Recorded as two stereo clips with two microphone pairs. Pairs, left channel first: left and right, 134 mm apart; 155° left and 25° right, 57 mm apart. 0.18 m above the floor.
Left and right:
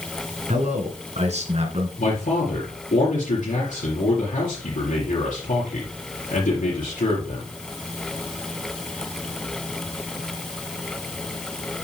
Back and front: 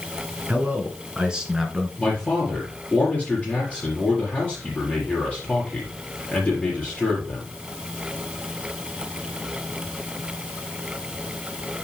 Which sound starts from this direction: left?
A man speaking, at 2.0 s.